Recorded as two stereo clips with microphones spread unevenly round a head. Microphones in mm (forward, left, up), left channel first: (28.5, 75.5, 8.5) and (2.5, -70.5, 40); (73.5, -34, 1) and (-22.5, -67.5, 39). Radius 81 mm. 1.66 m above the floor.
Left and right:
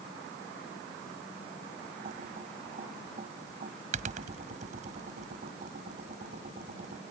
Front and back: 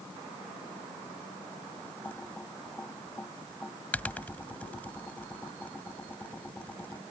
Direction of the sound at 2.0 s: 60° right.